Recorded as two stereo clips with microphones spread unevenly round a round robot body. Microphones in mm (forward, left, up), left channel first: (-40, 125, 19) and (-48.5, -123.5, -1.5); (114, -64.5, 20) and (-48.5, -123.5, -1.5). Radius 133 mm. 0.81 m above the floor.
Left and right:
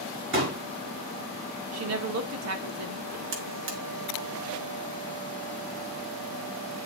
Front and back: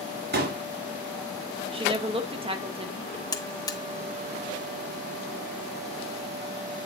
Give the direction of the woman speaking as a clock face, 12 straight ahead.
4 o'clock.